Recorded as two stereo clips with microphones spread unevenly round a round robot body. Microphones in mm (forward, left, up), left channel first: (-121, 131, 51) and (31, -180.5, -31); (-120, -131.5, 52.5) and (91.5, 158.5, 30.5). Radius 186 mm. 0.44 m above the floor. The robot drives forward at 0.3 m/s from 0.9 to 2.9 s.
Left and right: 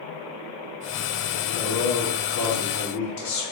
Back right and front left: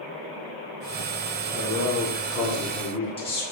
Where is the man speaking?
140° left, 0.8 m; by 3.4 s 160° left, 1.0 m.